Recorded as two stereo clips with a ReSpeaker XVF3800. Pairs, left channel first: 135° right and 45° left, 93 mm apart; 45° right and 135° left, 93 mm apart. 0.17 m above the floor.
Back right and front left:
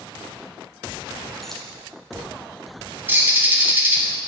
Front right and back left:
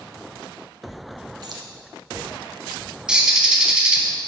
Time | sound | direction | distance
1.4 | keys jangling | 140° left | 1.3 m
3.1 | a bird | 70° left | 1.3 m